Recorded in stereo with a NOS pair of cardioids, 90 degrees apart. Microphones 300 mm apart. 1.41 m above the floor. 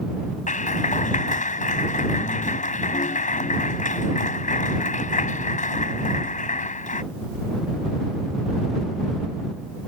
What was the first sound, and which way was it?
A clap, 25° left.